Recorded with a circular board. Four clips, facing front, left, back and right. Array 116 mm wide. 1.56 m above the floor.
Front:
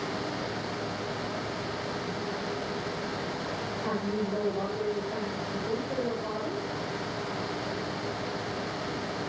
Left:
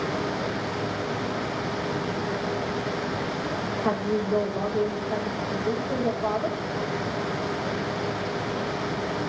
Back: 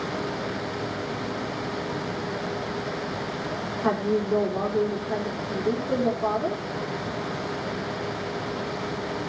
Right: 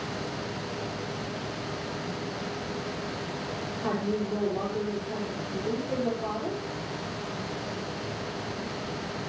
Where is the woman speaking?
Straight behind, 5 m.